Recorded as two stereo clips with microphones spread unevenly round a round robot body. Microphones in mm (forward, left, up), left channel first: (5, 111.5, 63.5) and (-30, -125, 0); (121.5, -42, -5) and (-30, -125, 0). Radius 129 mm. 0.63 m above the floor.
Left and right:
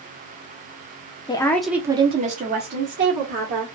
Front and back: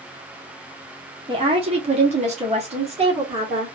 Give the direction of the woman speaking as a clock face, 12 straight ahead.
7 o'clock.